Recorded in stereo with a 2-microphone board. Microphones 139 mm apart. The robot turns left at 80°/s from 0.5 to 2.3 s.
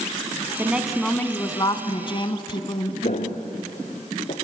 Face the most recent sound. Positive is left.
turn(degrees=65)  # may be behind; listen again after turning